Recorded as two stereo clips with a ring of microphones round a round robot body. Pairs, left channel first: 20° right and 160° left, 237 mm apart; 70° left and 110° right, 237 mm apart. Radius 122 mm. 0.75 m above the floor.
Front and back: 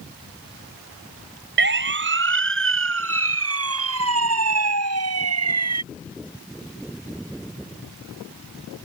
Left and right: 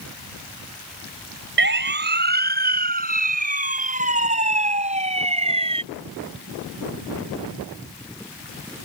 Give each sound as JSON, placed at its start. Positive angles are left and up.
{"t": 1.6, "sound": "a siren", "azimuth_deg": -155}